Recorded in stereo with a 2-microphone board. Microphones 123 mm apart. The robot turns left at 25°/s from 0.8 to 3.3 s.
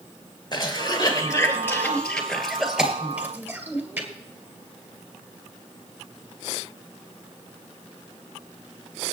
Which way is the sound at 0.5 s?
35° left (ahead or behind).